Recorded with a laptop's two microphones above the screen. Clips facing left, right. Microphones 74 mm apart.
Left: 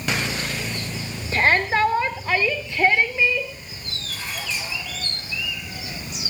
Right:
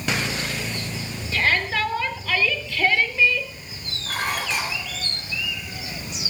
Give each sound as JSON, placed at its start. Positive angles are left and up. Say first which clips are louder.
{"t": 1.3, "sound": "a shout", "louder": "left 4 dB", "side_deg": 40, "distance_m": 3.5}
{"t": 4.1, "sound": "dishes clattering", "louder": "right 6 dB", "side_deg": -75, "distance_m": 3.0}